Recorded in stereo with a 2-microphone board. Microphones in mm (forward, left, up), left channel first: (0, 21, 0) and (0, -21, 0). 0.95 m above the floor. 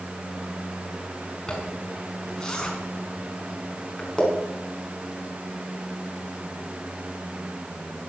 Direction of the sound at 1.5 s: 20° left (ahead or behind).